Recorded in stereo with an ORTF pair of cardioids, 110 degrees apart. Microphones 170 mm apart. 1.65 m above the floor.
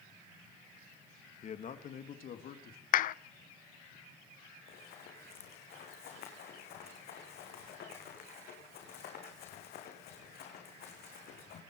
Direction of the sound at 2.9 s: 55° left.